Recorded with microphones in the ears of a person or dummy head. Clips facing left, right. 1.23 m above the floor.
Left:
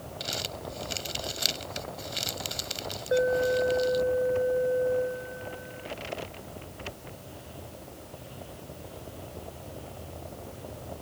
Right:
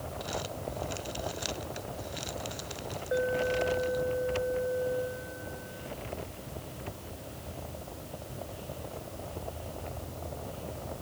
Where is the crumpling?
35° left (ahead or behind).